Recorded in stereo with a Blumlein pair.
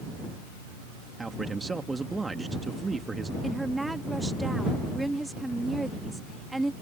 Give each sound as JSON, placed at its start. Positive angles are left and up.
{"t": 1.2, "sound": "a man speaking", "azimuth_deg": -10}
{"t": 3.4, "sound": "a woman speaking", "azimuth_deg": -5}